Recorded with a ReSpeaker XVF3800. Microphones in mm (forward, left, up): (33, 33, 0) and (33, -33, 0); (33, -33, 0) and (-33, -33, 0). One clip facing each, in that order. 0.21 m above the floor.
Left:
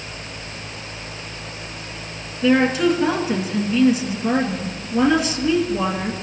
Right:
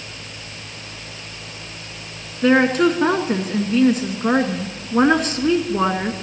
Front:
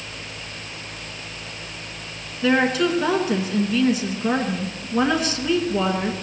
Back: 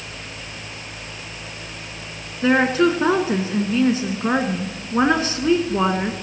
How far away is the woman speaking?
About 1.9 m.